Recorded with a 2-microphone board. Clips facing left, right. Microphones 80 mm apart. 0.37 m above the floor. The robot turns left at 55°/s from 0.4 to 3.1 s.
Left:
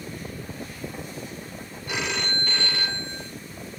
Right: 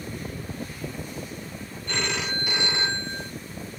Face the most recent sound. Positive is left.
turn(degrees=-55)